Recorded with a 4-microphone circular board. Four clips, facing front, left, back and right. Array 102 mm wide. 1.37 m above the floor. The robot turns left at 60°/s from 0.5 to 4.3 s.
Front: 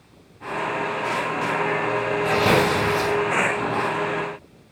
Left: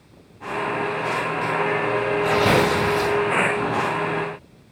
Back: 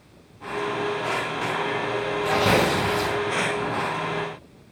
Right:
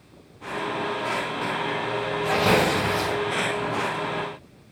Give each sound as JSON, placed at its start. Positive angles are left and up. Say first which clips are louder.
{"t": 2.2, "sound": "tearing paper", "louder": "left 1 dB, front 1 dB", "azimuth_deg": 80, "distance_m": 1.4}